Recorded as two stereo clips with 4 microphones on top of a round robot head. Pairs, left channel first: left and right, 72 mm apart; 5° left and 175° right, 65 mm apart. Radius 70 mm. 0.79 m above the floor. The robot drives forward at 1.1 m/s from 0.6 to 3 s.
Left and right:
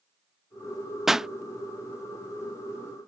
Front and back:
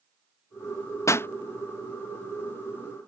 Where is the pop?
5° right; by 1.3 s 10° right.